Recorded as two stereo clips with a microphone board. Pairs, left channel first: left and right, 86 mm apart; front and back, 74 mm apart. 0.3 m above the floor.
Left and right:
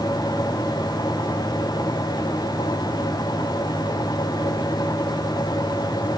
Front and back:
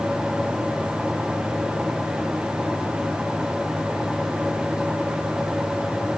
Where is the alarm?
No alarm in this recording.